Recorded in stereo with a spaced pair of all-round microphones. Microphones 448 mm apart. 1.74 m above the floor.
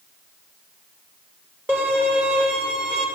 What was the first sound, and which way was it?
A violin, 5° right (ahead or behind).